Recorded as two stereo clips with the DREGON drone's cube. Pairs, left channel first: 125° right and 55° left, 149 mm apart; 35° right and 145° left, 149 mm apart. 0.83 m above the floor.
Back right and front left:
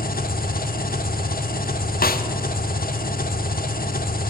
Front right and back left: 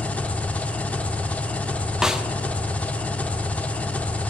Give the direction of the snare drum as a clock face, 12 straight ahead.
4 o'clock.